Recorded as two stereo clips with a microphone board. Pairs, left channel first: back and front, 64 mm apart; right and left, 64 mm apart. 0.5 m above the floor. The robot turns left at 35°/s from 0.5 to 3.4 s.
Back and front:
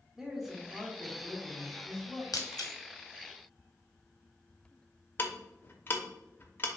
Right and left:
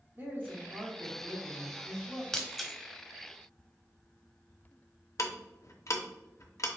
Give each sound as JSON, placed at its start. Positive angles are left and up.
{"t": 0.2, "sound": "a man speaking", "azimuth_deg": 80, "distance_m": 1.2}
{"t": 2.3, "sound": "breaking glass", "azimuth_deg": -170, "distance_m": 0.7}
{"t": 5.2, "sound": "ticking", "azimuth_deg": -125, "distance_m": 0.6}